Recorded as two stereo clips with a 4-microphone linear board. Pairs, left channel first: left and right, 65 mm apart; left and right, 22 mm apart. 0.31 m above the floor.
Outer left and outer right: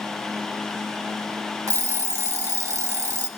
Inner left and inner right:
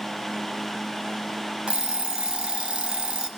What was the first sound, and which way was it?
An alarm clock, 55° right (ahead or behind).